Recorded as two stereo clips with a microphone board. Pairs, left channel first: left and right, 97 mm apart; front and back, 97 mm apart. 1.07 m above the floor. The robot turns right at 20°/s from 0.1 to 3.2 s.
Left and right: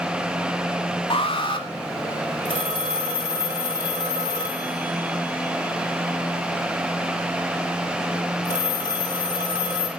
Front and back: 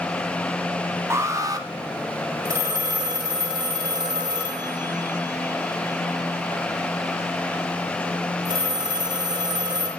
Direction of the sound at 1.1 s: 115° left.